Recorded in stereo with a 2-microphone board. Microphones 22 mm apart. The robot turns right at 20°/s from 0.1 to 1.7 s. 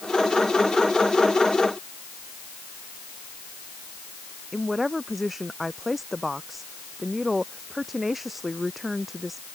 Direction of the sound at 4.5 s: 5° right (ahead or behind).